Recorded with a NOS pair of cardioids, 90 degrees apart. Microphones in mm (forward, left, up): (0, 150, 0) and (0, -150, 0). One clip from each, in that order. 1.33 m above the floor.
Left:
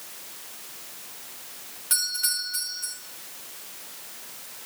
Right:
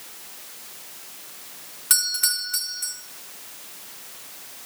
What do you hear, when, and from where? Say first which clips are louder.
1.9 s a doorbell: right 4 dB; 55° right, 4 m